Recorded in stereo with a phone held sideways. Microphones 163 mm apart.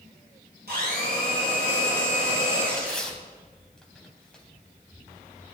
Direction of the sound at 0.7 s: 80° right.